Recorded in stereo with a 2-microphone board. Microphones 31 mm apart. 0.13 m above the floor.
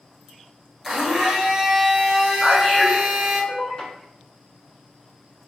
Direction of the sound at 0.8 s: 10° right (ahead or behind).